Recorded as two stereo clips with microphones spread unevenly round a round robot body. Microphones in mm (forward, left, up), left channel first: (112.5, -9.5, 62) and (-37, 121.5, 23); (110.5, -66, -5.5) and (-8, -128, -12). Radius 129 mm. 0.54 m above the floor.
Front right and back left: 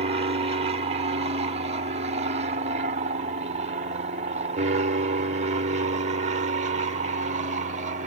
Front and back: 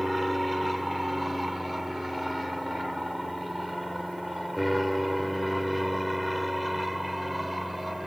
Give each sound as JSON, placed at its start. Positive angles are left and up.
{"t": 0.0, "sound": "an aircraft", "azimuth_deg": 120}